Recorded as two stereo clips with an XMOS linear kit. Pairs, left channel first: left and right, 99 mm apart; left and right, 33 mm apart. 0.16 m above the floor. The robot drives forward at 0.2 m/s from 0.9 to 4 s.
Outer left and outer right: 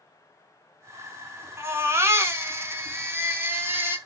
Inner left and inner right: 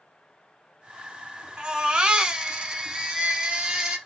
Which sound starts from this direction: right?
A baby crying, at 1.6 s.